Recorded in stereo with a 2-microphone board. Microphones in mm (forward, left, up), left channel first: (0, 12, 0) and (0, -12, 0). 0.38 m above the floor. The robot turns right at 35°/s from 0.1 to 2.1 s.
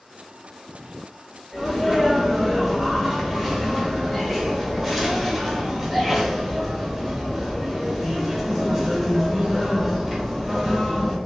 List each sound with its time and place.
1.5 s a sneeze: 5° left (ahead or behind), 0.8 m; by 11.2 s 5° right (ahead or behind), 0.8 m